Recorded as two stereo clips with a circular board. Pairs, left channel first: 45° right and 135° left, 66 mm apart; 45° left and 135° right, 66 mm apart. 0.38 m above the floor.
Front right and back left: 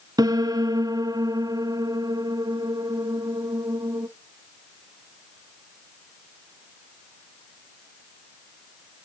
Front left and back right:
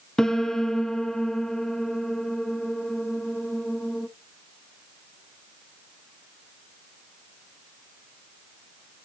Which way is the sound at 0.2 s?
130° left.